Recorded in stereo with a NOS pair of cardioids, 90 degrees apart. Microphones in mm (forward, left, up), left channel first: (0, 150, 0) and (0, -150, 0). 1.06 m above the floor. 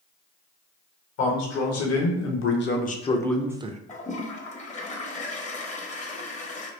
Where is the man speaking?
65° left, 1.3 m; by 3.8 s 30° right, 0.5 m.